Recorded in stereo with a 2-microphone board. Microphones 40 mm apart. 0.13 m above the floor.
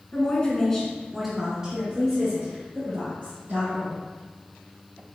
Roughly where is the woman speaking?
Left.